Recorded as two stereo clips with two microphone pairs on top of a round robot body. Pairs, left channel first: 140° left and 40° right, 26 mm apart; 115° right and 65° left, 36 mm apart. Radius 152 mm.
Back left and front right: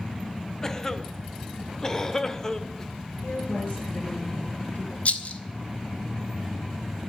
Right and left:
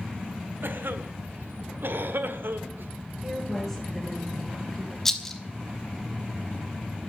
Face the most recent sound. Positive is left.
turn(degrees=165)